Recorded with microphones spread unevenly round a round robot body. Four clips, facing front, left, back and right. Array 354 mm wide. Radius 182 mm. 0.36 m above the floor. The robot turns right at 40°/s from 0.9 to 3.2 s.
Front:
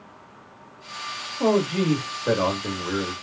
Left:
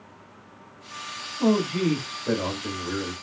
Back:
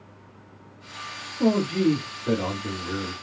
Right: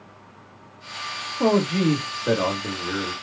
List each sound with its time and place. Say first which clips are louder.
1.4 s a man speaking: right 2 dB, even; 70° right, 1.5 m; by 3.1 s straight ahead, 1.5 m